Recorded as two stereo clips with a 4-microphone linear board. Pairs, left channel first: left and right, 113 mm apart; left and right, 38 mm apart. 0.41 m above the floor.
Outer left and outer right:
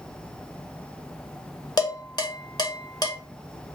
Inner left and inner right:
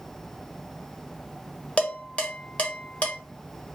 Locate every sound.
1.8 s dishes clattering: 40° left (ahead or behind), 0.9 m